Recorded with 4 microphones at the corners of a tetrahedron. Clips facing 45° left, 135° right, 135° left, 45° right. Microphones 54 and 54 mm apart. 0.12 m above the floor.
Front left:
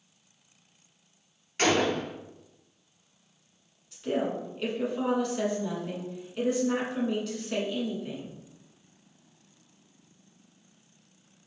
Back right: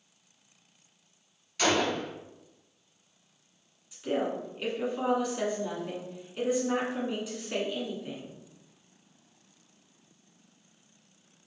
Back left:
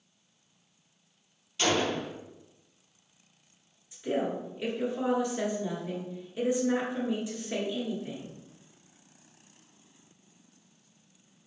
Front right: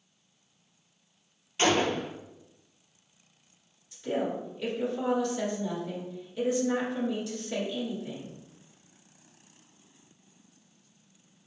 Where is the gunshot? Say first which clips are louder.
Front left 2 dB, front right 2 dB; 5° left, 0.8 m.